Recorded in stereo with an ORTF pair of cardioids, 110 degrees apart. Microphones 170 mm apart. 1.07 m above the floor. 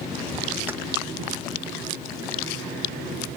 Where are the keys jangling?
15° right, 0.6 m.